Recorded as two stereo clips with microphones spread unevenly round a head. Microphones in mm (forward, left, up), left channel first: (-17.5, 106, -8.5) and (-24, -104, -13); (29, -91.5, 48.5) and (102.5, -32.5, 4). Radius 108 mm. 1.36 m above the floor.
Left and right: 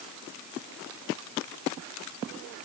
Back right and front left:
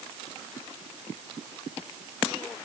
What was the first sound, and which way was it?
Only background noise.